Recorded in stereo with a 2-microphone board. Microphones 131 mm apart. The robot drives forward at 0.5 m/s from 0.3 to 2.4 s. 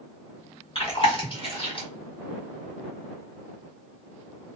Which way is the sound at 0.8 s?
45° left (ahead or behind).